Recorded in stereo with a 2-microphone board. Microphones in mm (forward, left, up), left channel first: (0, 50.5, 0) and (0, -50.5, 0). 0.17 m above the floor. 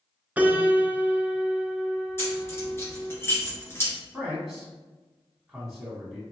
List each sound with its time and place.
0.4 s a piano: 15° right (ahead or behind), 0.6 m
2.2 s keys jangling: 25° left (ahead or behind), 1.8 m
4.1 s a man speaking: centre (ahead or behind), 1.2 m